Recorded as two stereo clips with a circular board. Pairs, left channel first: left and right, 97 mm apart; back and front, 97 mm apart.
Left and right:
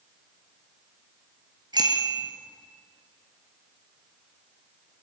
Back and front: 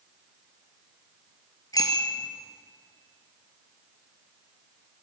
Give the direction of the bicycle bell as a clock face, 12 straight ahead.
4 o'clock.